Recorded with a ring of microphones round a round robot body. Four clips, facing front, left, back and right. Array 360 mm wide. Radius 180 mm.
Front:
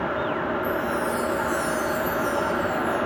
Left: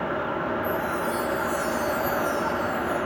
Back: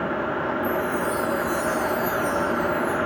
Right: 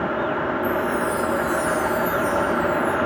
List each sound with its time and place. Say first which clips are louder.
0.6 s a chime: right 4 dB, back 1 dB; 120° right, 4 m